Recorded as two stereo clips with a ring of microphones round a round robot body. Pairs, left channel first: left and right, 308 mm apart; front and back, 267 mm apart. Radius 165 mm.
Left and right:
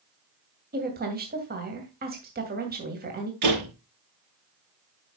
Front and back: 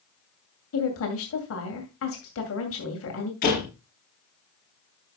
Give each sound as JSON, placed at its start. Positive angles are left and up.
{"t": 0.7, "sound": "a woman speaking", "azimuth_deg": -35, "distance_m": 2.5}
{"t": 3.4, "sound": "a door slam", "azimuth_deg": -65, "distance_m": 6.0}